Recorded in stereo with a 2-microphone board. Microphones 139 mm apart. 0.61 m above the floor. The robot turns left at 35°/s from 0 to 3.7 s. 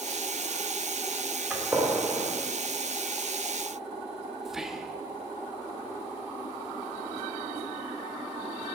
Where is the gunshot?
5° right (ahead or behind), 2 m; by 2.3 s 30° right (ahead or behind), 2 m.